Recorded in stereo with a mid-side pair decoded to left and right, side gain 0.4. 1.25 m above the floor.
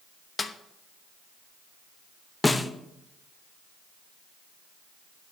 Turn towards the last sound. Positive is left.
turn(degrees=20)